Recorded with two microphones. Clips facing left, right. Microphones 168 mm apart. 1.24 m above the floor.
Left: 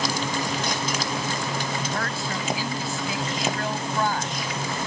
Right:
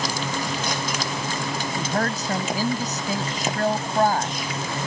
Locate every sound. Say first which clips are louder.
1.8 s a woman speaking: right 4 dB; 45° right (ahead or behind)